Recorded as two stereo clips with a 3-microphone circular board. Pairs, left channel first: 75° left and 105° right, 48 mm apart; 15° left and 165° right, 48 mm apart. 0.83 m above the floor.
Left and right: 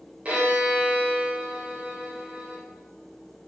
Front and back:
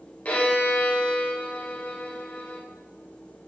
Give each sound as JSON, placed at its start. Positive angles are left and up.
{"t": 0.2, "sound": "a violin", "azimuth_deg": -45, "distance_m": 1.8}